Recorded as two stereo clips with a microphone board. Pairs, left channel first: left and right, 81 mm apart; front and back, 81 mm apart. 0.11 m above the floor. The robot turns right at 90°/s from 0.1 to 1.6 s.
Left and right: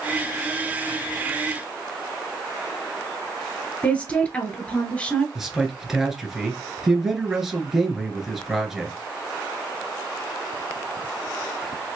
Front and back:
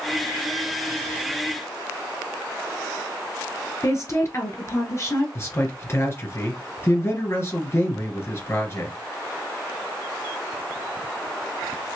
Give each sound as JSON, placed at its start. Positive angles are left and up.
{"t": 3.8, "sound": "a woman speaking", "azimuth_deg": 25, "distance_m": 1.4}
{"t": 5.3, "sound": "a man speaking", "azimuth_deg": -10, "distance_m": 1.3}